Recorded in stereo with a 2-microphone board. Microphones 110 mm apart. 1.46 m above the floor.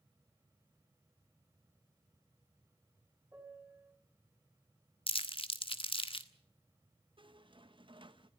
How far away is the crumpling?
About 1.4 m.